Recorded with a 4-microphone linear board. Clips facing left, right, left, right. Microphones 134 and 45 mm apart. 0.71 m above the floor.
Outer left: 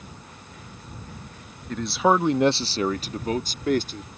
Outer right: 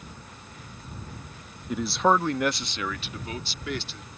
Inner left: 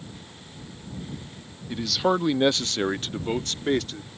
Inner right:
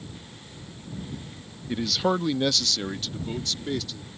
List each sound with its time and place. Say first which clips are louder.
1.7 s a man speaking: outer left 2 dB, inner left 1 dB; 10° right (ahead or behind); by 4.1 s 45° left (ahead or behind)